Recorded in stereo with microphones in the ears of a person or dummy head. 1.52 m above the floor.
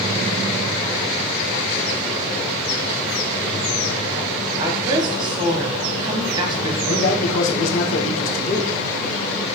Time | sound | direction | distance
4.6 | a woman speaking | 25° right (ahead or behind) | 1.0 m
6.9 | a man speaking | 80° left | 1.3 m